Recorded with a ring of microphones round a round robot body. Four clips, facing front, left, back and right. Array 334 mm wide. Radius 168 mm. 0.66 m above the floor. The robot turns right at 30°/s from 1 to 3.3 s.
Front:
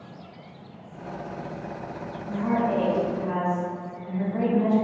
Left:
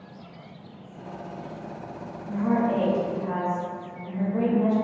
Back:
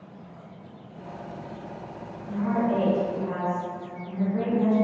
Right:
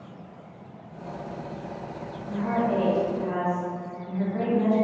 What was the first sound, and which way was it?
A woman speaking, 25° left.